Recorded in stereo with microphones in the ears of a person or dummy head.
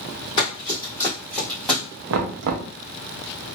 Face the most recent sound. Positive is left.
turn(degrees=-70)  # may be behind; listen again after turning